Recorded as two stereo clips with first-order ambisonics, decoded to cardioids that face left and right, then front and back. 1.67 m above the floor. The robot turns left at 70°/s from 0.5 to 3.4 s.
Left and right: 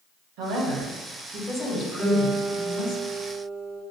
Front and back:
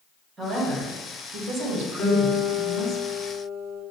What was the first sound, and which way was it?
A woman speaking, 110° right.